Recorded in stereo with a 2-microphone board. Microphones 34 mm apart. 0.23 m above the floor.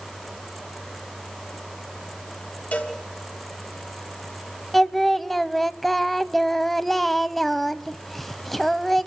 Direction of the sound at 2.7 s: 45° left (ahead or behind).